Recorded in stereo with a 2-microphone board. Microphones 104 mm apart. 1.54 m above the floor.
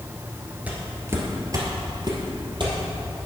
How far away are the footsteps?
About 1.8 m.